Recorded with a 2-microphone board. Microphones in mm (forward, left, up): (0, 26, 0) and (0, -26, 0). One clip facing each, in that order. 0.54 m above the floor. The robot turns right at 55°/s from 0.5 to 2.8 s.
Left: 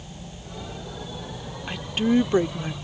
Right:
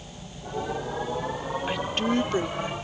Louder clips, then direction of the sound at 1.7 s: Left 5 dB; 10° right.